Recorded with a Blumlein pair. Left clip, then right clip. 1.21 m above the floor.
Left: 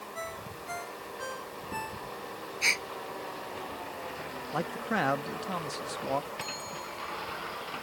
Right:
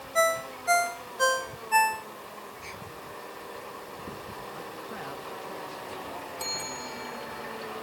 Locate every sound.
0.1 s a ringtone: 35° right
2.6 s a gasp: 40° left
4.5 s a man speaking: 35° left
6.4 s a bell: 70° right